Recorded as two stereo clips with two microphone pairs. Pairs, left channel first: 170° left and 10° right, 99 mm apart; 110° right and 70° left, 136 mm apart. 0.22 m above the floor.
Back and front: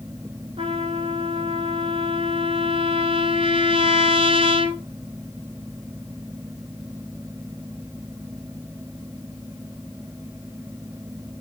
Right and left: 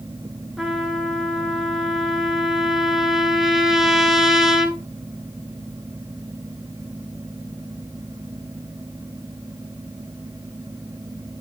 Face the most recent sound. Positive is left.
turn(degrees=-20)